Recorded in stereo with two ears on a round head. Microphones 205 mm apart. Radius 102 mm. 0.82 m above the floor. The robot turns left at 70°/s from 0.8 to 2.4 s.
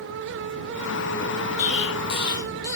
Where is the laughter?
No laughter in this recording.